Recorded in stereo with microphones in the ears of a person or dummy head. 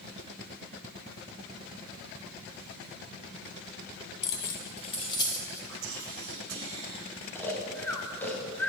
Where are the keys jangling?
65° left (ahead or behind), 0.7 m; by 5.6 s 20° left (ahead or behind), 1.0 m.